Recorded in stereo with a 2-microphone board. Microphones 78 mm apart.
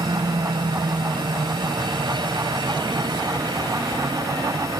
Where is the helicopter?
75° right (ahead or behind).